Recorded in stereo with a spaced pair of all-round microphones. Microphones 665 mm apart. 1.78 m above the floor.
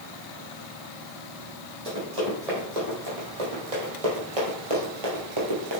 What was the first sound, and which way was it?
Running footsteps, 60° right (ahead or behind).